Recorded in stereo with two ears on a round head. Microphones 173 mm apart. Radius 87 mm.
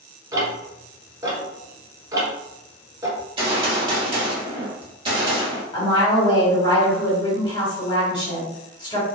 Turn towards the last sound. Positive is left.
turn(degrees=25)  # may be behind; listen again after turning